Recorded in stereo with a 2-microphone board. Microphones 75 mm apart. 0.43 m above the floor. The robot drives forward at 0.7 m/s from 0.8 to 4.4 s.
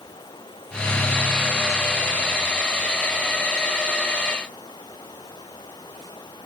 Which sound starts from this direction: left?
Running water, at 0.0 s.